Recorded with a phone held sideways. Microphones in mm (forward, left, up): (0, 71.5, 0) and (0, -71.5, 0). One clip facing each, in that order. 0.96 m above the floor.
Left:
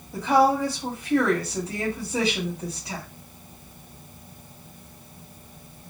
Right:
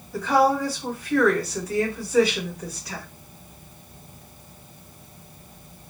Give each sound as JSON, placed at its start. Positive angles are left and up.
{"t": 0.1, "sound": "a woman speaking", "side_deg": 25, "distance_m": 1.9}